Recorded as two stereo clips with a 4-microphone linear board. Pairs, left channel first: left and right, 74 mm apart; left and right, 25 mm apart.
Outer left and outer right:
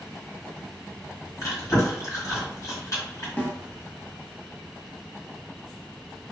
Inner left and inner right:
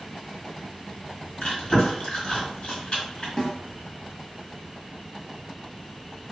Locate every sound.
1.4 s chewing: 45° left (ahead or behind), 1.5 m
3.4 s a snare drum: 25° left (ahead or behind), 0.7 m